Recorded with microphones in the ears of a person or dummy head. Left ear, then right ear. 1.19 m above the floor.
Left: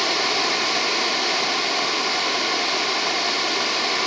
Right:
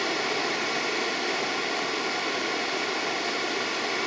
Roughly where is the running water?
Left.